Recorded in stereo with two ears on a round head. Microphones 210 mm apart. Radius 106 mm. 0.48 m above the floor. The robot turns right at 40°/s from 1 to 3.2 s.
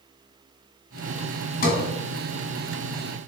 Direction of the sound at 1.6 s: 35° left (ahead or behind).